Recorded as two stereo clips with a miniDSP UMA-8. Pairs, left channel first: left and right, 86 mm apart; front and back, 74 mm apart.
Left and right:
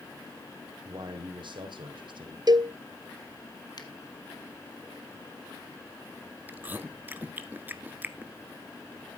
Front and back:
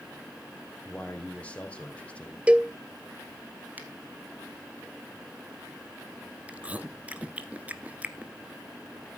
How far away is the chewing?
About 1.1 m.